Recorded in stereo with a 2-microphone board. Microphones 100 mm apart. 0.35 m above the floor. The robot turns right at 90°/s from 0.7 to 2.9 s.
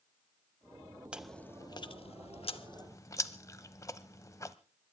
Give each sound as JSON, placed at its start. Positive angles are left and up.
{"t": 1.1, "sound": "chewing", "side_deg": -10, "distance_m": 0.7}